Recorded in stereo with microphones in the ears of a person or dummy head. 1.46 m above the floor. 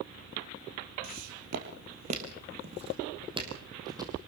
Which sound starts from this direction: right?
Footsteps, at 1.0 s.